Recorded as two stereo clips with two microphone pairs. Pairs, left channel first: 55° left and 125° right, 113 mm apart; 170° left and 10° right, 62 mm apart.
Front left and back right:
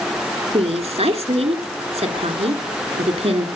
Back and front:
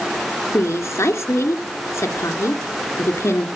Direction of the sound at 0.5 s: 145° right.